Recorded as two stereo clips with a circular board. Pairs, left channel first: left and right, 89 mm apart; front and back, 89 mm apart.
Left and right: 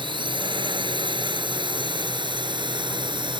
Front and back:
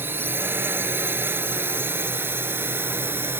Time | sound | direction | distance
0.0 | a drone | 115° right | ?